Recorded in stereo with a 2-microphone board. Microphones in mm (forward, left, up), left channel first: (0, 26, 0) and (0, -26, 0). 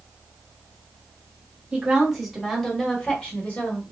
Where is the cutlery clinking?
I don't hear cutlery clinking.